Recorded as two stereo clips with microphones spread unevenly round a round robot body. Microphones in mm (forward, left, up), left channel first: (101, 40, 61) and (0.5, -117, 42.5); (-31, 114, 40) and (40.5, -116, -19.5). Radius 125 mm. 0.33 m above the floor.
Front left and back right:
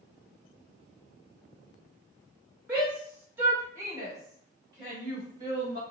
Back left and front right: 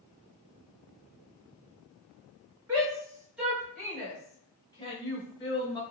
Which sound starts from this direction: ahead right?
A shout, at 2.7 s.